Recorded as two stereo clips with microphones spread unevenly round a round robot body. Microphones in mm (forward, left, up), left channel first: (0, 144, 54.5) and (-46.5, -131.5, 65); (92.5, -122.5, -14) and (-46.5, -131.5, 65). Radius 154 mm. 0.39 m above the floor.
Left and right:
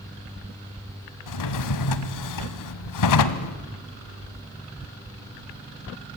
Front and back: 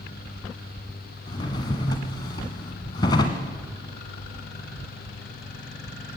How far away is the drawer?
About 1.4 m.